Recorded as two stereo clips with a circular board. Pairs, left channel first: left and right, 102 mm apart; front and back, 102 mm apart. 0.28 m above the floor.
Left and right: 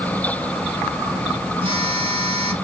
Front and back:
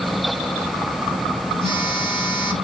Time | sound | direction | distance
1.6 | a phone buzzing | 115° right | 3 m